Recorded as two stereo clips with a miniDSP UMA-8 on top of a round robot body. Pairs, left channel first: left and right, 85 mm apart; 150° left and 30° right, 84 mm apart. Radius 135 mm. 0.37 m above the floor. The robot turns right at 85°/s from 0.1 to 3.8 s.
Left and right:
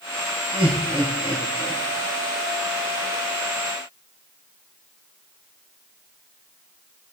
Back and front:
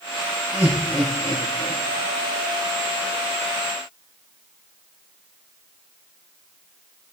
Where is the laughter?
110° right, 5 m; by 1.8 s straight ahead, 5 m.